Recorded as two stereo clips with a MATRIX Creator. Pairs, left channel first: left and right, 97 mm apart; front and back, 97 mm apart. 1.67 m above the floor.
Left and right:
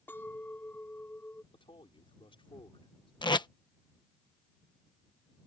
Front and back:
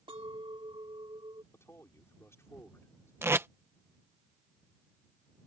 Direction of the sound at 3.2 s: 115° left.